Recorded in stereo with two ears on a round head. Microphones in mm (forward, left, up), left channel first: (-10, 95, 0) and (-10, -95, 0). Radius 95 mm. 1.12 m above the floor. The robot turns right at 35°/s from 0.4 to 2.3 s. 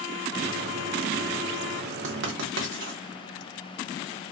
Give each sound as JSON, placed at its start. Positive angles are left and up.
{"t": 2.0, "sound": "writing", "side_deg": -60, "distance_m": 1.2}